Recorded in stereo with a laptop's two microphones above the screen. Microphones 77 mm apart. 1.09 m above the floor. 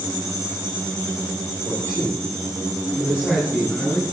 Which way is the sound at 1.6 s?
35° left (ahead or behind).